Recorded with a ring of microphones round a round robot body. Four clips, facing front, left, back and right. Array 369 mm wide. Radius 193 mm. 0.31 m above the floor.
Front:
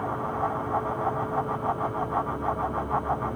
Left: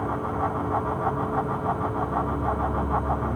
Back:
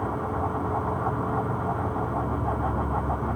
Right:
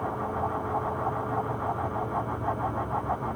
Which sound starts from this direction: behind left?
An insect, at 0.0 s.